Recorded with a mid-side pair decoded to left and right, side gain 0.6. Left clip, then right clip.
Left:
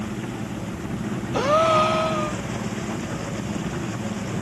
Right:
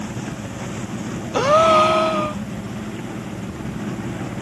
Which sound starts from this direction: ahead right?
A gasp, at 1.3 s.